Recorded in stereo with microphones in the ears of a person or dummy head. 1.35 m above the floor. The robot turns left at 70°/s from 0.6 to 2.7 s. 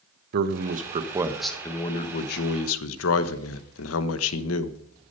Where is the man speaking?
125° right, 1.1 m; by 4.8 s 90° left, 1.1 m.